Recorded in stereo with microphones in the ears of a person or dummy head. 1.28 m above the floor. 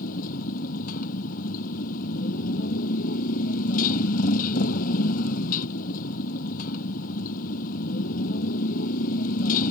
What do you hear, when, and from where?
0.0 s a motorcycle: 50° left (ahead or behind)